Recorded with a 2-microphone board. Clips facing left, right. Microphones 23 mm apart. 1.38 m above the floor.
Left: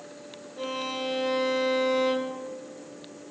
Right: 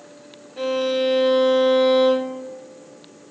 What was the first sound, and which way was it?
A violin, 65° right (ahead or behind).